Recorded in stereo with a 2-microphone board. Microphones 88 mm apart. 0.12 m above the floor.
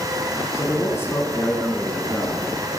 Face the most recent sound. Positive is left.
turn(degrees=5)  # may be behind; listen again after turning